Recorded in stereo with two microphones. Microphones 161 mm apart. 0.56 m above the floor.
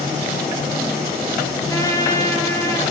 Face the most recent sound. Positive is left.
turn(degrees=20)  # may be behind; listen again after turning